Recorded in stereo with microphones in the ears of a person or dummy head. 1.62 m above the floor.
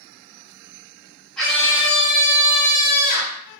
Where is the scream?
10° left (ahead or behind), 1.2 m; by 3.4 s 55° left (ahead or behind), 1.8 m.